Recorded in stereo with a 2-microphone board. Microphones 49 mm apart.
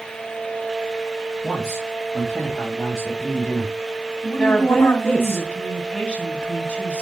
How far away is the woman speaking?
About 1.9 m.